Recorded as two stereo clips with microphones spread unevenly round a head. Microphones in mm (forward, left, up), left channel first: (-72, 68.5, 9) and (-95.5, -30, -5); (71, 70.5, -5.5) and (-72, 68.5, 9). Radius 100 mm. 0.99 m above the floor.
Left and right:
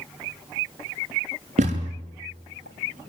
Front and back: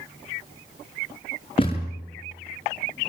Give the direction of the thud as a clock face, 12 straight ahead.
2 o'clock.